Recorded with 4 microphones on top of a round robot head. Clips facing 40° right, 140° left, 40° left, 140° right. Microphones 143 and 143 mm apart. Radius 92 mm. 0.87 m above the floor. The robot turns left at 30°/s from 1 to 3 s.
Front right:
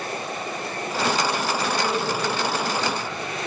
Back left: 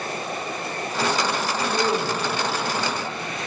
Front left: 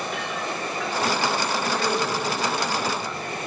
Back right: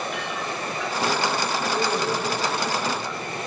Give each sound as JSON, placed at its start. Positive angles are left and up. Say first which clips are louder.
{"t": 1.7, "sound": "a man speaking", "louder": "back left 1 dB, back right 2 dB", "azimuth_deg": 165, "distance_m": 0.9}